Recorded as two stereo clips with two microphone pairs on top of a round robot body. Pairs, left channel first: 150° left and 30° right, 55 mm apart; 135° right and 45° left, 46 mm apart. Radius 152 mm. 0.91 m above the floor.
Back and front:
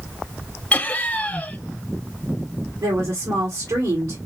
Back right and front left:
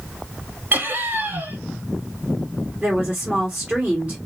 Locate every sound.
0.7 s laughter: 90° left, 1.5 m
2.8 s a woman speaking: 20° right, 1.9 m